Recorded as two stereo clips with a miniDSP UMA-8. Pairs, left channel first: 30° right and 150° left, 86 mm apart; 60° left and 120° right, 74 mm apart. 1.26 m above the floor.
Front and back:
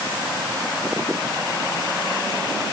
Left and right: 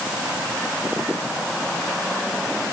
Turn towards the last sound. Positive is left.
No sound to turn to.